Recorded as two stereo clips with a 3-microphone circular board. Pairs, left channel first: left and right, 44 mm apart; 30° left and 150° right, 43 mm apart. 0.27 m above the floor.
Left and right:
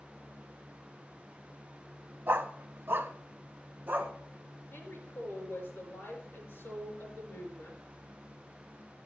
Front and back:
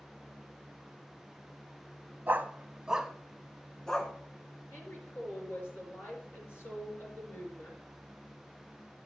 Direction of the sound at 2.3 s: 115° right.